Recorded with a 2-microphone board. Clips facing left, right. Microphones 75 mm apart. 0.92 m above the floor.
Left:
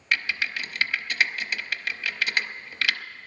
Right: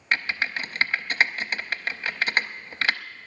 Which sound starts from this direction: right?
Typing on a keyboard, at 0.1 s.